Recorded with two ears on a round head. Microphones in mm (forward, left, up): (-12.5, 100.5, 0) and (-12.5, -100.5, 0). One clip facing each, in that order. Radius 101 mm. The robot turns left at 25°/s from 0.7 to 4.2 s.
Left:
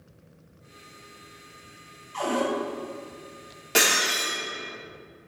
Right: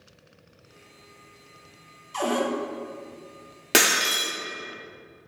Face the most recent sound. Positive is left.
turn(degrees=-80)